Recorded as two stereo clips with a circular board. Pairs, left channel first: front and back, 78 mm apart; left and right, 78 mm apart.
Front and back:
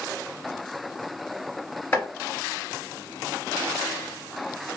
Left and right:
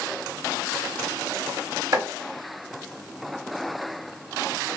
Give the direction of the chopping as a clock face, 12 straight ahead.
2 o'clock.